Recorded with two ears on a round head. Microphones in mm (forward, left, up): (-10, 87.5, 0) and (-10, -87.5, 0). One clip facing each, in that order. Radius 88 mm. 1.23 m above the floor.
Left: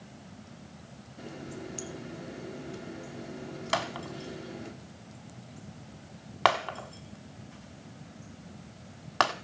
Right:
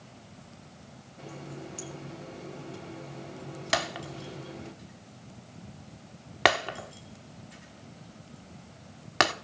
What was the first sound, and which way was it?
A running tap, 20° left (ahead or behind).